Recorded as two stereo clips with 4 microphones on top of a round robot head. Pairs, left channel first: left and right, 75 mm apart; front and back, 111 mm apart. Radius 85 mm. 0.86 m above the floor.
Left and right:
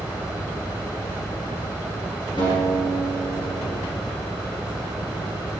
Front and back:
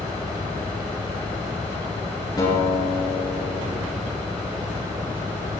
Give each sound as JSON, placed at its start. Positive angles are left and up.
{"t": 2.4, "sound": "a guitar", "azimuth_deg": 55, "distance_m": 7.0}